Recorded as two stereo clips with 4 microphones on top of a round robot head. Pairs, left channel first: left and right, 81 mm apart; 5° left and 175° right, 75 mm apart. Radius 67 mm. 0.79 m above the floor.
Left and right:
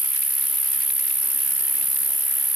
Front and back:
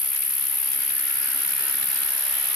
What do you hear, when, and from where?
0.0 s an insect: straight ahead, 1.8 m